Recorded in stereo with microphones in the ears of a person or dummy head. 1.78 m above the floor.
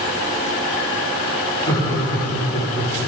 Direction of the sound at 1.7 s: 20° left (ahead or behind).